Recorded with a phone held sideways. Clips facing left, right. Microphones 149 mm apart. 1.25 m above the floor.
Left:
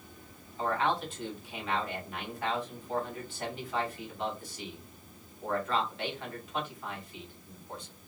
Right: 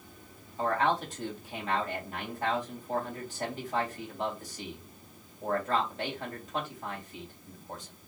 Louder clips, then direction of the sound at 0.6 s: Right 2 dB; 40° right (ahead or behind).